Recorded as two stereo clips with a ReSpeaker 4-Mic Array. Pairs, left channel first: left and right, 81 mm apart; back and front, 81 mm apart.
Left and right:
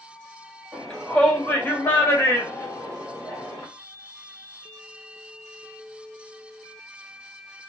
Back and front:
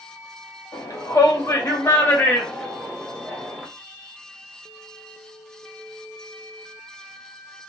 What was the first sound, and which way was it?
A shout, 175° left.